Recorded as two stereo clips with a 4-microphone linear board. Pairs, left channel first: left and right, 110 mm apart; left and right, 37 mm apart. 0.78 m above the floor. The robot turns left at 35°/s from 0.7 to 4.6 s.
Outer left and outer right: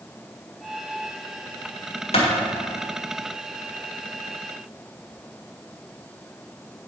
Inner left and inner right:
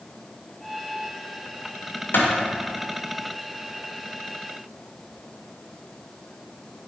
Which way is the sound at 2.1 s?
80° left.